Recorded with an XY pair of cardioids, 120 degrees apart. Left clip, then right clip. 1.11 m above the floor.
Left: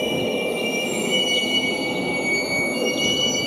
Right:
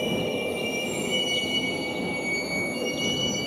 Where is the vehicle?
25° left; by 3.5 s 35° left.